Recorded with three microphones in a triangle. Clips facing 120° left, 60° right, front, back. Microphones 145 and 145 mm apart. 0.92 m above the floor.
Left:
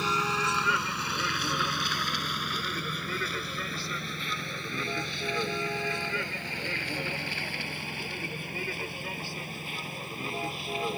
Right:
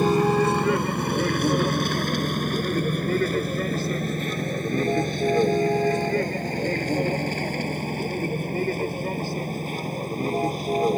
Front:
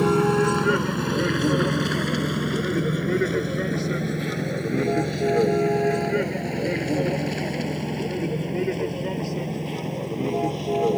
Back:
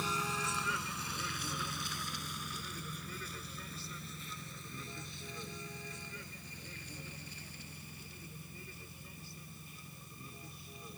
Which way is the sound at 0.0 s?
20° right.